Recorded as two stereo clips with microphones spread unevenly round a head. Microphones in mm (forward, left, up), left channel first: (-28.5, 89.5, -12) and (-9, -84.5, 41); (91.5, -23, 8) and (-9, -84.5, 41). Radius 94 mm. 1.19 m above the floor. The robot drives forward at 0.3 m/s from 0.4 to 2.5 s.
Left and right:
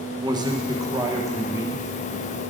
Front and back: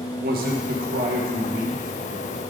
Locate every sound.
0.2 s a man speaking: 155° right, 1.1 m; by 2.4 s 165° right, 1.6 m